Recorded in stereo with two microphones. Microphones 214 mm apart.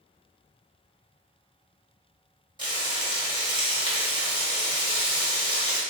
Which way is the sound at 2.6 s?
20° right (ahead or behind).